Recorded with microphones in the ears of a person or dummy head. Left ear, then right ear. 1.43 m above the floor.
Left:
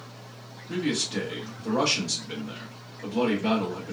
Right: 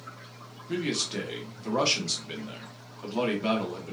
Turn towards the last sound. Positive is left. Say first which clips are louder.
# left 2 dB
turn(degrees=-35)  # may be behind; listen again after turning